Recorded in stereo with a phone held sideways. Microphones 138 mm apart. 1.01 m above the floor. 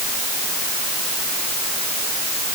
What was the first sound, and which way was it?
Only background noise.